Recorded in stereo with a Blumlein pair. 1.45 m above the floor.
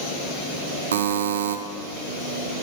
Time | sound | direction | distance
0.9 | a buzzer | 65° right | 0.7 m